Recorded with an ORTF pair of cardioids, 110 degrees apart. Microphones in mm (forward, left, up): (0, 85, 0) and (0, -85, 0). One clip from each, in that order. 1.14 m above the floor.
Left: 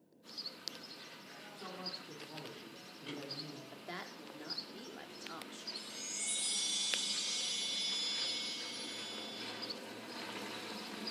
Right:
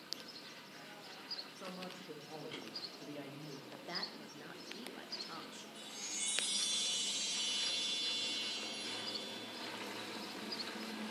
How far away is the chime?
About 3 m.